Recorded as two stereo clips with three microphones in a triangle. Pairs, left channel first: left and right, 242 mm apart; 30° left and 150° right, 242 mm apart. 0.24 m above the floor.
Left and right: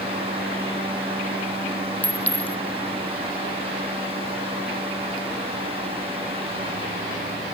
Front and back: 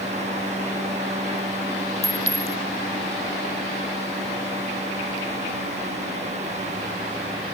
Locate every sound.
2.0 s a clink: 5° left